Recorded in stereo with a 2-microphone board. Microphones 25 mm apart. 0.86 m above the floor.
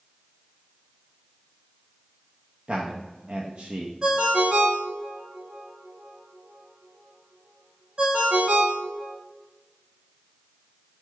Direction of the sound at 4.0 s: 40° right (ahead or behind).